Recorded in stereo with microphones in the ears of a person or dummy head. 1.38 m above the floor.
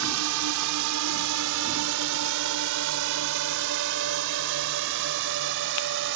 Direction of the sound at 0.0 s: 65° right (ahead or behind).